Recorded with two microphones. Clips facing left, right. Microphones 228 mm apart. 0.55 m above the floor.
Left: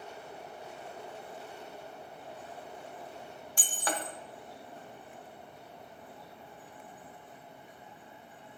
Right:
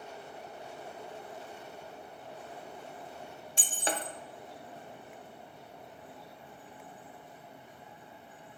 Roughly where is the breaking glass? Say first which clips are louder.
Right 1 dB; right.